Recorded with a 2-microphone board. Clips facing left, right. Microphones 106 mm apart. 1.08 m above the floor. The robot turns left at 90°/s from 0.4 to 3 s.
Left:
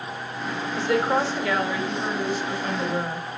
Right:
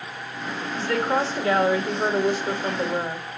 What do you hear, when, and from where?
0.8 s a woman speaking: 25° left, 2.0 m; by 3.3 s 175° right, 2.0 m